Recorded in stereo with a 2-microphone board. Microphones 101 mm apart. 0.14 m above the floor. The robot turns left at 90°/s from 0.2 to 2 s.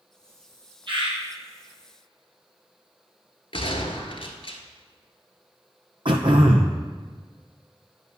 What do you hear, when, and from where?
0.9 s a bird: 55° right (ahead or behind), 2.5 m; by 1.2 s 75° right (ahead or behind), 2.5 m
3.5 s a gunshot: 60° left (ahead or behind), 1.0 m
6.0 s throat clearing: 55° right (ahead or behind), 1.0 m